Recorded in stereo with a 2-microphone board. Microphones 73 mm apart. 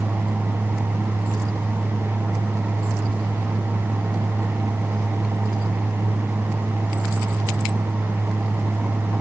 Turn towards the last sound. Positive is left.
No sound to turn to.